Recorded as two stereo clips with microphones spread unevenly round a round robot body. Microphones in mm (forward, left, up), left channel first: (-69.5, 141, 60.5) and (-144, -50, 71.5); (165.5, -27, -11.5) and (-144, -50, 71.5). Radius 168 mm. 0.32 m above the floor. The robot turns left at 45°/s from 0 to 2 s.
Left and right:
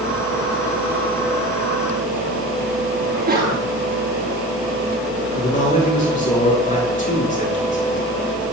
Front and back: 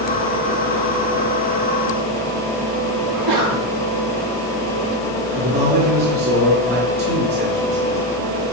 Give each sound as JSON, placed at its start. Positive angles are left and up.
{"t": 3.0, "sound": "a sneeze", "azimuth_deg": -155, "distance_m": 7.0}
{"t": 5.3, "sound": "a man speaking", "azimuth_deg": 120, "distance_m": 7.0}